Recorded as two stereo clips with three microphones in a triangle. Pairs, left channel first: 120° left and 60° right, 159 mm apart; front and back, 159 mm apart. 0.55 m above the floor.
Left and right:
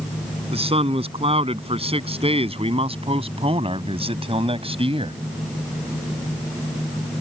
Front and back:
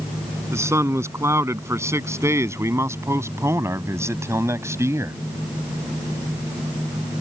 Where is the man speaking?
110° right.